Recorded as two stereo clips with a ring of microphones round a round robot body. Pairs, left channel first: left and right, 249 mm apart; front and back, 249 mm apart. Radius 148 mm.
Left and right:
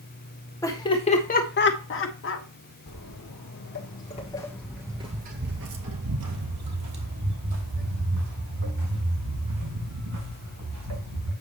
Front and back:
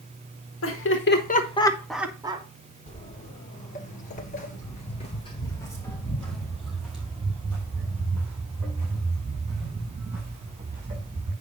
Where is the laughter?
15° left, 1.7 m; by 2.5 s 115° left, 1.7 m.